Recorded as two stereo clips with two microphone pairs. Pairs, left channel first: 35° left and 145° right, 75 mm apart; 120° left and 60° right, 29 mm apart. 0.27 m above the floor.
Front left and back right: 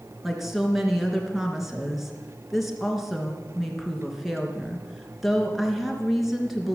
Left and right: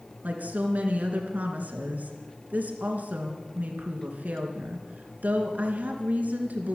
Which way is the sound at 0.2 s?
55° right.